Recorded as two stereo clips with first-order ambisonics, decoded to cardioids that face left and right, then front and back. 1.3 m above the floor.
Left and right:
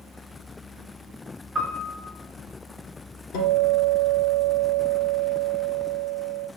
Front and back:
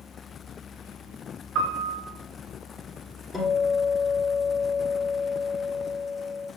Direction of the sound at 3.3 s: 90° left.